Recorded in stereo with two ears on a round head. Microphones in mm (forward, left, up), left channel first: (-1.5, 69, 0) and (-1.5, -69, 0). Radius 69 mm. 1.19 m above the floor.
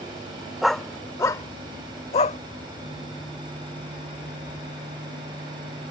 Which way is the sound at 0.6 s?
Centre (ahead or behind).